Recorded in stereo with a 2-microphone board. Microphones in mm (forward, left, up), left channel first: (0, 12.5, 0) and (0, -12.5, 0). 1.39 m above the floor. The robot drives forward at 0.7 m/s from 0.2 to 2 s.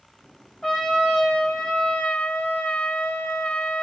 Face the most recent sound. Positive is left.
turn(degrees=50)  # may be behind; listen again after turning